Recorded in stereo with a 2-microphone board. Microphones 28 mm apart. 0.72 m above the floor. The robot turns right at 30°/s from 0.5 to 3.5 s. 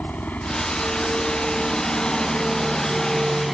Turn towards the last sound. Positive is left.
turn(degrees=-10)  # may be behind; listen again after turning